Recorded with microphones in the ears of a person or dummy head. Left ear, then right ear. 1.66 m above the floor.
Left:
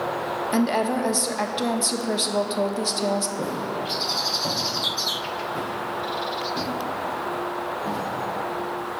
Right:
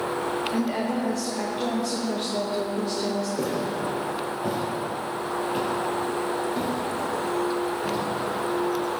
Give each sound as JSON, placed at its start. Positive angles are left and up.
{"t": 0.5, "sound": "a woman speaking", "side_deg": 65, "distance_m": 0.7}
{"t": 3.4, "sound": "footsteps", "side_deg": -40, "distance_m": 2.0}